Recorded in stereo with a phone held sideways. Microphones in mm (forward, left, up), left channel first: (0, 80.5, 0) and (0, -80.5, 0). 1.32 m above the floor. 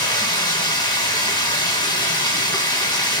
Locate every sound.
0.0 s running water: 25° left (ahead or behind), 1.8 m